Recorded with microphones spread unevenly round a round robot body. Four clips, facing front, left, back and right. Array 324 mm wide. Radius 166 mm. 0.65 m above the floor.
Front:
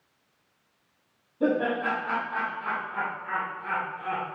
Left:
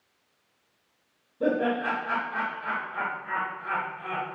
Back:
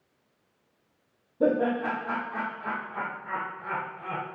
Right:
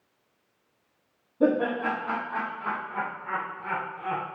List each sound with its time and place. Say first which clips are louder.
1.4 s laughter: right 2 dB, back 1 dB; 145° right, 5 m; by 4.2 s 135° right, 6.5 m